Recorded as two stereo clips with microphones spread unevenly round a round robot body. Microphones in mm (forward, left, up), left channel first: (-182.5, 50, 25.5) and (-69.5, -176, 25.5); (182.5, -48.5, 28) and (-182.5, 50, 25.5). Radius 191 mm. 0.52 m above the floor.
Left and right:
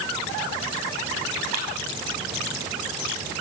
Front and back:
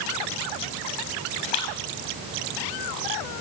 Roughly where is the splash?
Ahead.